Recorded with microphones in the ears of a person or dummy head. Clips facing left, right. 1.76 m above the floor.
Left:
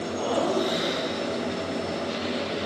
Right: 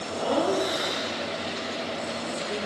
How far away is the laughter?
About 2.5 m.